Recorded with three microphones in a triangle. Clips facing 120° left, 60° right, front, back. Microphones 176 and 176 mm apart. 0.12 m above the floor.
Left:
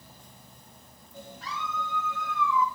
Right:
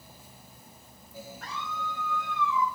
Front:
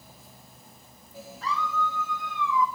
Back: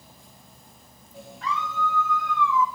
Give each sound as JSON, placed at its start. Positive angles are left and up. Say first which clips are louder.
{"t": 1.4, "sound": "a scream", "louder": "left 2 dB, back 1 dB", "azimuth_deg": -50, "distance_m": 2.5}